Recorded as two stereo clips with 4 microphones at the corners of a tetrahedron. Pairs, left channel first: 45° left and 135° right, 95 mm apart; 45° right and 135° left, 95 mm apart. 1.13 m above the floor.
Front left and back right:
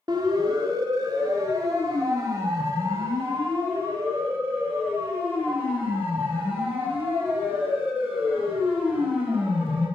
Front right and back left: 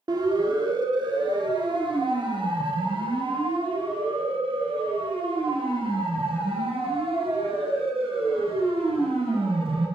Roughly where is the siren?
Behind.